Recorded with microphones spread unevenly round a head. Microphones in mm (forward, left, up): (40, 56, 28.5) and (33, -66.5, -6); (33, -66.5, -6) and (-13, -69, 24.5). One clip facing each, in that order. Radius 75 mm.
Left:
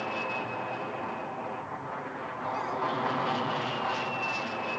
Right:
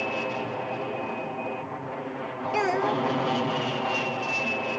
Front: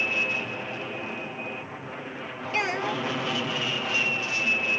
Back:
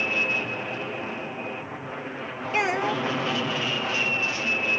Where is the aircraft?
105° right.